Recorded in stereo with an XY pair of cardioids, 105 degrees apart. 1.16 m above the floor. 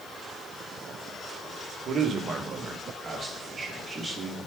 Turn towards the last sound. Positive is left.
turn(degrees=-20)